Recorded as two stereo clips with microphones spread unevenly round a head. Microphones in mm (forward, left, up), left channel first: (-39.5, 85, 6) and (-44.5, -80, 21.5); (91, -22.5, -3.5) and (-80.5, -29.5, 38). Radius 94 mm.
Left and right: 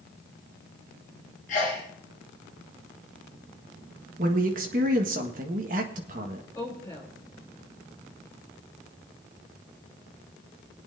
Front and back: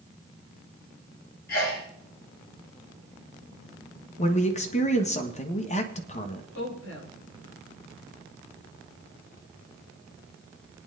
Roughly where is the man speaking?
Ahead right.